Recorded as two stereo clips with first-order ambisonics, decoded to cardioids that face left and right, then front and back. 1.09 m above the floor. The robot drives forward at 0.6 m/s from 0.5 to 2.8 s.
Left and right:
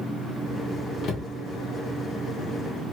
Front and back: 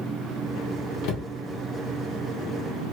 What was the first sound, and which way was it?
A cupboard door, 30° left.